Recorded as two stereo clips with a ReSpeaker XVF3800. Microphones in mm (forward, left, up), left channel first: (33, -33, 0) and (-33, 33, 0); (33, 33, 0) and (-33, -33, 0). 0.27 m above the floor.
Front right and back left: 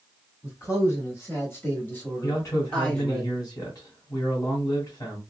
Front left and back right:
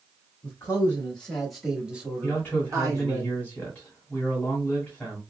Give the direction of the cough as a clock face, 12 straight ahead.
No cough in this recording.